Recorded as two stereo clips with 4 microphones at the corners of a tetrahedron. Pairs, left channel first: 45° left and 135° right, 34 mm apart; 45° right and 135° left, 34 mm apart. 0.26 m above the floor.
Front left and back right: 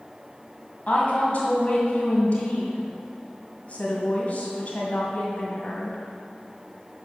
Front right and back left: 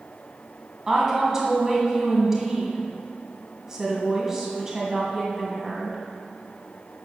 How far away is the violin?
No violin in this recording.